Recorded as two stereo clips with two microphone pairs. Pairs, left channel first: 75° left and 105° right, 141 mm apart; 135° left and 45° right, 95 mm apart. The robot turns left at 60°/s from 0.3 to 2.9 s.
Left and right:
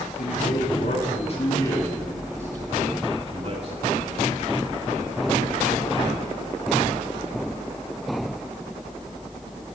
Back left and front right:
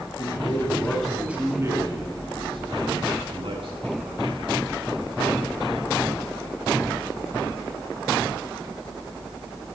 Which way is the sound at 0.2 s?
90° left.